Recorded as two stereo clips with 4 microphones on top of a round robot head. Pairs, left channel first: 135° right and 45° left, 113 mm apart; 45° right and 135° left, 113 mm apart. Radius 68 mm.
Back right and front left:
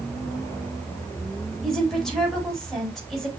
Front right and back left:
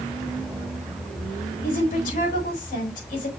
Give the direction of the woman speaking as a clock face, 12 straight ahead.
2 o'clock.